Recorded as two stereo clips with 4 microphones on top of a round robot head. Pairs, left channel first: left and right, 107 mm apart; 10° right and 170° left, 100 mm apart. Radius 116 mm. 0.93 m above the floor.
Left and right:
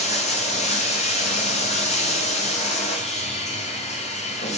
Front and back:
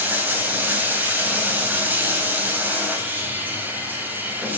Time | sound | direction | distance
0.0 | running water | 100° left | 3.5 m